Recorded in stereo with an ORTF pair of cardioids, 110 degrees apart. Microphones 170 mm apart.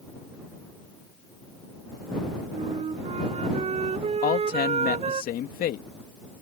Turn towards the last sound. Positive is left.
turn(degrees=65)